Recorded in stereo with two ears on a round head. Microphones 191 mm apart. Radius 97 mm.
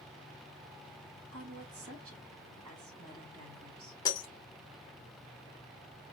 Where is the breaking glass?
20° left (ahead or behind), 1.7 m.